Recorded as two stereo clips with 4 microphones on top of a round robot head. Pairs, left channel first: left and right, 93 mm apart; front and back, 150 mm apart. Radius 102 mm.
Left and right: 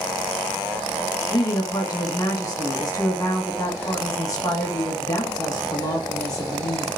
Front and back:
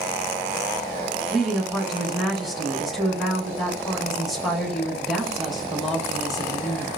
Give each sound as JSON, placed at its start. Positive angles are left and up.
{"t": 1.3, "sound": "a woman speaking", "azimuth_deg": 90, "distance_m": 1.3}